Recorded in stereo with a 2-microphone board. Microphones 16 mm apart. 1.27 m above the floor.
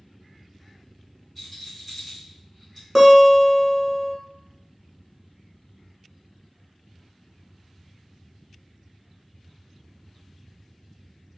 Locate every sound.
1.4 s a rattle: 5° left (ahead or behind), 1.9 m
3.0 s a guitar: 5° right (ahead or behind), 1.3 m